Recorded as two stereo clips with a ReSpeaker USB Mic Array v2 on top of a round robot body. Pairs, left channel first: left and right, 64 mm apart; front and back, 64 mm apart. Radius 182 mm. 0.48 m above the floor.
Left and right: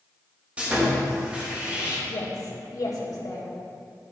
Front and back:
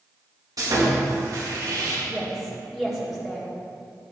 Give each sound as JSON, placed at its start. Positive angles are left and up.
{"t": 0.6, "sound": "sawing", "azimuth_deg": -160, "distance_m": 3.0}
{"t": 2.1, "sound": "a woman speaking", "azimuth_deg": 95, "distance_m": 1.8}